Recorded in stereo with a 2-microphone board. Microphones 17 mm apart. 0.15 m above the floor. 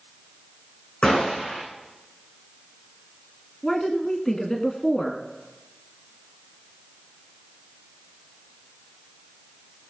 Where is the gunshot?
75° left (ahead or behind), 7.5 m.